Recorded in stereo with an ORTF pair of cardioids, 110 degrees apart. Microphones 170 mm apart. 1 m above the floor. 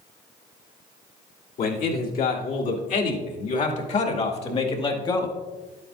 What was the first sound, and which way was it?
A man speaking, 65° left.